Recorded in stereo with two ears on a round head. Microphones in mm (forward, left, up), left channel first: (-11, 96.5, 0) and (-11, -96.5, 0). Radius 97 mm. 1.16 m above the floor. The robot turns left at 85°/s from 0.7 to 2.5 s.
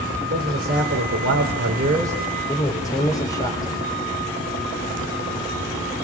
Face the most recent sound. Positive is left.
turn(degrees=160)